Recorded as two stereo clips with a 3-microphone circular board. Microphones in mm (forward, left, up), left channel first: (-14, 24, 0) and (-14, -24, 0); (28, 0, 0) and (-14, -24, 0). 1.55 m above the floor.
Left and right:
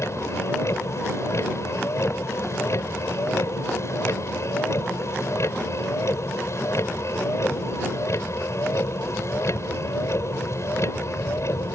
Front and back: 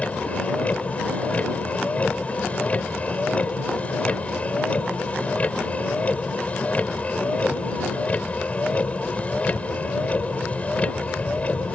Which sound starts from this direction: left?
A vehicle, at 0.0 s.